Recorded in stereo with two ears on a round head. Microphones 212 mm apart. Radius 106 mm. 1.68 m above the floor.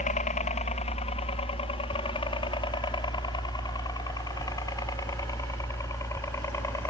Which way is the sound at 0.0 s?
30° left (ahead or behind).